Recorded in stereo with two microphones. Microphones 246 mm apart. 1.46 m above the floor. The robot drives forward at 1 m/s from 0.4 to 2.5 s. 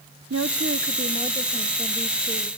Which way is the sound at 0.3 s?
70° right (ahead or behind).